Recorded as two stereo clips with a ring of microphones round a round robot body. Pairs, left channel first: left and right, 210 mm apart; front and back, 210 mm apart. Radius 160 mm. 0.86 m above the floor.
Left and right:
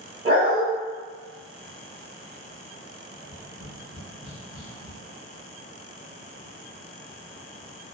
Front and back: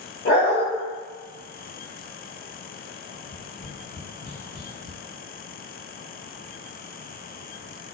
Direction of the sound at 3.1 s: Straight ahead.